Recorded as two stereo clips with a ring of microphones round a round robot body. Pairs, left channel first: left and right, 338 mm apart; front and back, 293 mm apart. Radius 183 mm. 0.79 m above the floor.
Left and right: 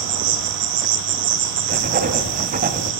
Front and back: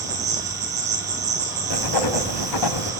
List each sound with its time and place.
0.0 s an insect: 110° right, 5 m
1.7 s writing: 25° right, 1.5 m